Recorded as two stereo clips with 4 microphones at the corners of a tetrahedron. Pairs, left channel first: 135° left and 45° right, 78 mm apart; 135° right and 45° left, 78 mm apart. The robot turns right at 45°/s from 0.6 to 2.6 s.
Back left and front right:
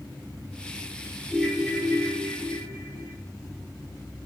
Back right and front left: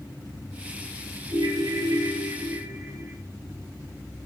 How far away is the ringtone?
About 6 m.